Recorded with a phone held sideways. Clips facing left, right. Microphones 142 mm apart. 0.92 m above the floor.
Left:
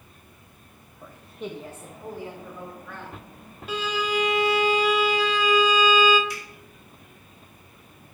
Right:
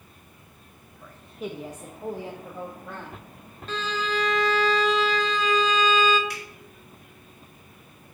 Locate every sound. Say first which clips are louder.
1.0 s a woman speaking: right 1 dB; 20° left (ahead or behind), 0.5 m; by 3.2 s 45° right (ahead or behind), 1.4 m
3.7 s a violin: left 2 dB; 10° left (ahead or behind), 0.6 m
6.3 s a finger snap: left 1 dB; 65° right (ahead or behind), 2.5 m